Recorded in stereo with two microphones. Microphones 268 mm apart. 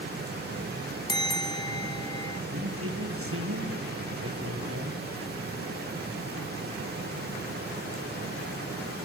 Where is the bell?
15° left (ahead or behind), 0.7 m.